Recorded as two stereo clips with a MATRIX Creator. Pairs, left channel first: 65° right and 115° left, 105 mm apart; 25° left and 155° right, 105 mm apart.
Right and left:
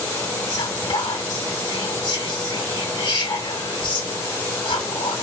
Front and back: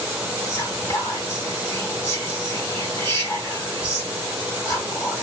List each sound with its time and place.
0.5 s whispering: 45° right, 2.5 m